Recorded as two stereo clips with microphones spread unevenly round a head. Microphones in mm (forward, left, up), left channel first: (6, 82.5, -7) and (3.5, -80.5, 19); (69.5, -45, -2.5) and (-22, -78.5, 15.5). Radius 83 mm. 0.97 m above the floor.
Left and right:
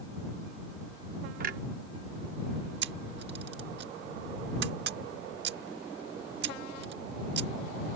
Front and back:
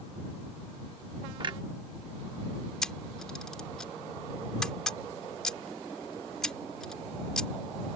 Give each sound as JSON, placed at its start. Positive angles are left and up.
{"t": 1.4, "sound": "a clunk", "azimuth_deg": -125}
{"t": 2.8, "sound": "a camera shutter", "azimuth_deg": -65}